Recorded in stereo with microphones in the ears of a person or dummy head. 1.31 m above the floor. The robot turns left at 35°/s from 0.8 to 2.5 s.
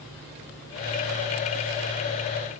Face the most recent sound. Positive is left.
No sound to turn to.